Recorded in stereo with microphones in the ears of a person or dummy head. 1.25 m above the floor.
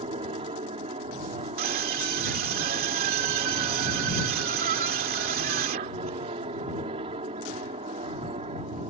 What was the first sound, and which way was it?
An aircraft, 30° right (ahead or behind).